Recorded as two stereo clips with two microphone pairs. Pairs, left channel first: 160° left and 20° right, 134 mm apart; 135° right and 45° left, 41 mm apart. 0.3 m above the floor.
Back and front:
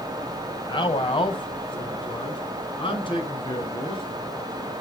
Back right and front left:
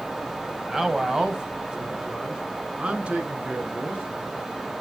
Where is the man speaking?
125° left, 1.8 m; by 4.0 s 105° left, 5 m.